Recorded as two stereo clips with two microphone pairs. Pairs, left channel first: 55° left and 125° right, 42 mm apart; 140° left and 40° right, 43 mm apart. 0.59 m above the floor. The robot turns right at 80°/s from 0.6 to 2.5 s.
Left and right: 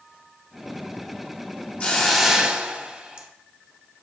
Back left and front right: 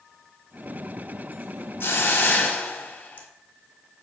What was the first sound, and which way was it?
A hiss, 115° left.